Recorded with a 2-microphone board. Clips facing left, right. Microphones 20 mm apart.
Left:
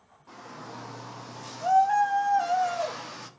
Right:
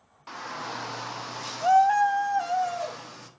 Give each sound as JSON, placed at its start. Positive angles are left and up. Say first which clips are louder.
{"t": 0.3, "sound": "a shout", "louder": "right 8 dB", "side_deg": -75, "distance_m": 1.3}